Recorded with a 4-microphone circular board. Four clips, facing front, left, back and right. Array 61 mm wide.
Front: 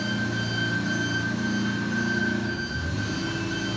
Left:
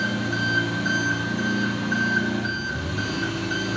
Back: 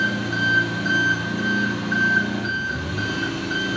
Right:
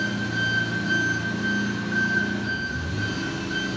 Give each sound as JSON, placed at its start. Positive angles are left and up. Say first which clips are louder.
{"t": 0.0, "sound": "an engine running", "louder": "left 1 dB, back 6 dB", "azimuth_deg": 150, "distance_m": 7.0}